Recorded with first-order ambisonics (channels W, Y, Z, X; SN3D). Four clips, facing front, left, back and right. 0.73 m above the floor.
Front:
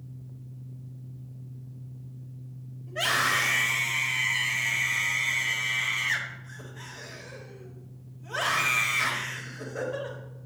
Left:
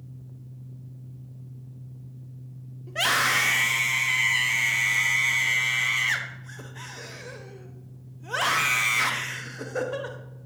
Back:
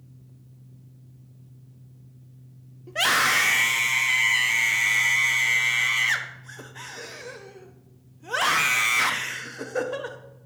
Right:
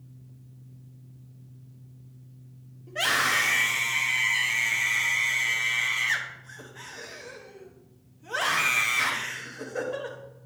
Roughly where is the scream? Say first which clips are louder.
Left 1 dB, back 4 dB; behind left.